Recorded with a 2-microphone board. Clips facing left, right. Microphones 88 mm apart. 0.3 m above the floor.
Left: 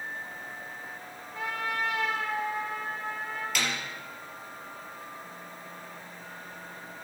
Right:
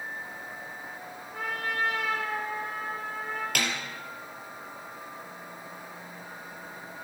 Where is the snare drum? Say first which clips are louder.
Even; 60° right (ahead or behind), 2 m.